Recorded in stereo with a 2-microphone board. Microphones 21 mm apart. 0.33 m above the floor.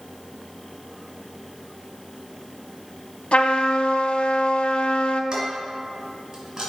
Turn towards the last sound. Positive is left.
turn(degrees=-40)  # may be behind; listen again after turning